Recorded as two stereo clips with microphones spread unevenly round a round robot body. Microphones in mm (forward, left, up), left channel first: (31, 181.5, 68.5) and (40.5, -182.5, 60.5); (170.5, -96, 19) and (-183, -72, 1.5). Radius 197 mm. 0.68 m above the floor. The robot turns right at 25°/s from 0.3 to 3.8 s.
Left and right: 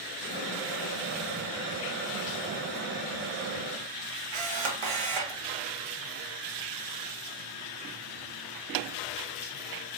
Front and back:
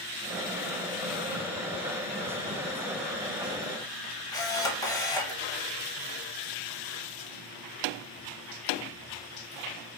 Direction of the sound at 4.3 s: 80° right.